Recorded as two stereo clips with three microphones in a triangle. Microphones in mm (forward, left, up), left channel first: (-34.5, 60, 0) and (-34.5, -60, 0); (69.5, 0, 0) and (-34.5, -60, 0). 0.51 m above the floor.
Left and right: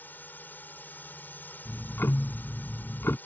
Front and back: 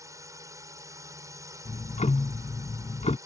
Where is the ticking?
20° left.